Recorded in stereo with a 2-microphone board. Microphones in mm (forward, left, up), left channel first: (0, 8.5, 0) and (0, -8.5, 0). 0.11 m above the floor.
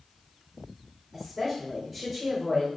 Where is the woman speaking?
10° right (ahead or behind), 5.5 m.